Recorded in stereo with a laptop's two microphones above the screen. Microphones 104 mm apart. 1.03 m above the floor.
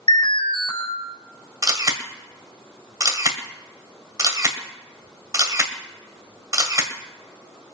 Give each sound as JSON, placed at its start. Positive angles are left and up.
{"t": 0.1, "sound": "an alarm", "side_deg": 55, "distance_m": 4.5}
{"t": 1.6, "sound": "a camera shutter", "side_deg": -35, "distance_m": 1.5}